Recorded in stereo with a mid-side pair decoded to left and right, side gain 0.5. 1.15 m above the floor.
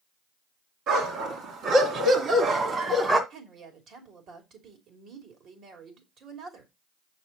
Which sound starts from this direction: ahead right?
A woman speaking, at 3.3 s.